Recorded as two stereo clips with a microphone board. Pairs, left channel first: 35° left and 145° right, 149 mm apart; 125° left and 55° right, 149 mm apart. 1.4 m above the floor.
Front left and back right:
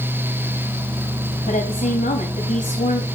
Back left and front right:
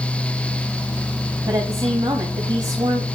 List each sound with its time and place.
1.5 s a woman speaking: 5° left, 3.5 m